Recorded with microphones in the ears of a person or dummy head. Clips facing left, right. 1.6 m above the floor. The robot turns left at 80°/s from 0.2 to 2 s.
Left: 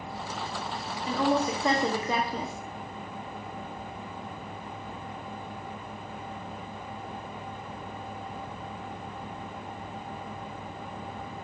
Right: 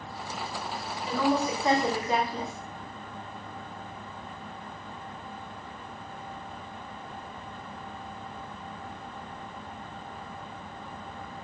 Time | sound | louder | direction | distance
1.1 | a woman speaking | even | 170° left | 0.9 m